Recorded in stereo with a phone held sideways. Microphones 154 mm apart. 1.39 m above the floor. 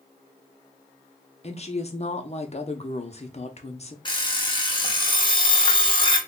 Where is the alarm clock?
30° left (ahead or behind), 0.8 m.